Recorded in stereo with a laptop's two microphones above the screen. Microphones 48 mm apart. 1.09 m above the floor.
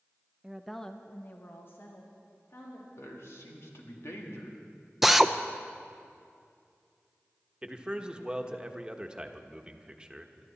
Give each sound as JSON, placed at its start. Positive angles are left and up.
{"t": 0.4, "sound": "a woman speaking", "side_deg": -15, "distance_m": 0.9}
{"t": 3.0, "sound": "a man speaking", "side_deg": 65, "distance_m": 2.0}
{"t": 5.0, "sound": "a drill", "side_deg": -5, "distance_m": 0.6}
{"t": 7.6, "sound": "a man speaking", "side_deg": -20, "distance_m": 1.2}